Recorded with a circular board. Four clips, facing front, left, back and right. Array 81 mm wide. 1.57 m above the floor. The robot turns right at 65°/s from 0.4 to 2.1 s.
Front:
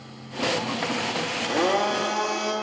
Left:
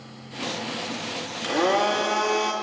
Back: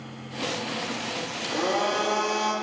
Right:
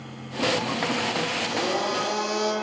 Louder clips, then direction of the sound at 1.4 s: Left 8 dB, front 3 dB; 50° left.